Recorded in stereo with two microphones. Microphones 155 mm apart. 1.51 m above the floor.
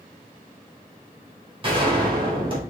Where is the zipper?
No zipper in this recording.